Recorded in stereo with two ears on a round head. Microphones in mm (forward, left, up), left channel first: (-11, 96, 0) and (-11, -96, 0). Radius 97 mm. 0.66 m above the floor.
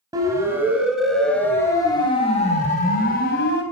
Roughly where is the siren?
Centre.